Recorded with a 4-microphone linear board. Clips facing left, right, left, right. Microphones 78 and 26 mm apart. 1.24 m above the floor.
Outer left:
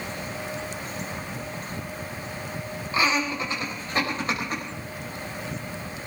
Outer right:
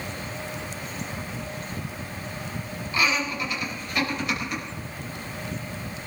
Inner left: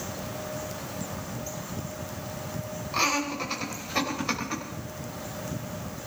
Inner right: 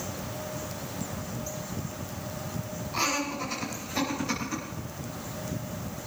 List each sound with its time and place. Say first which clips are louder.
2.9 s laughter: outer left 1 dB, inner left 3 dB; 30° left (ahead or behind), 5.5 m; by 4.6 s 40° left (ahead or behind), 6 m